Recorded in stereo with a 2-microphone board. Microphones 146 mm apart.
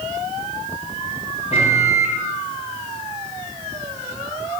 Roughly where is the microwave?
Left.